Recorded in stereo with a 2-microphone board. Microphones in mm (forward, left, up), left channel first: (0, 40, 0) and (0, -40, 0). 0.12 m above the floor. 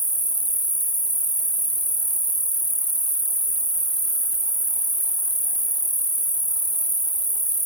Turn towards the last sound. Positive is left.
turn(degrees=-60)  # may be behind; listen again after turning